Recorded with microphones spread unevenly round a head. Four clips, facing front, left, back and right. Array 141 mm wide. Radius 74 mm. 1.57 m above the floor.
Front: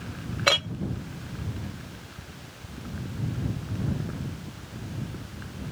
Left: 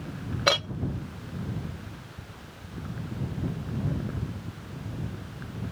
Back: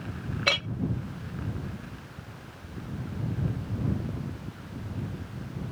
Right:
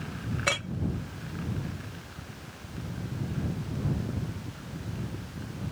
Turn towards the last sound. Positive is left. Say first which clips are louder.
# left 7 dB, front 5 dB
turn(degrees=50)